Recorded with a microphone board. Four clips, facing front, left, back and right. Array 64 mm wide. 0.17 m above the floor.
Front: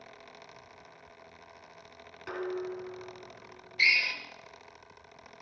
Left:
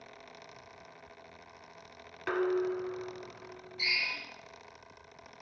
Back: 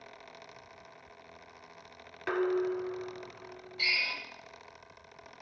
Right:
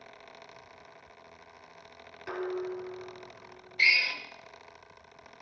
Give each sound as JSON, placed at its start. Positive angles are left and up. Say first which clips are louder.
{"t": 2.3, "sound": "dishes clattering", "louder": "left 4 dB, back 6 dB", "azimuth_deg": 125, "distance_m": 1.0}
{"t": 3.8, "sound": "a drill", "louder": "right 8 dB, front 6 dB", "azimuth_deg": -55, "distance_m": 1.8}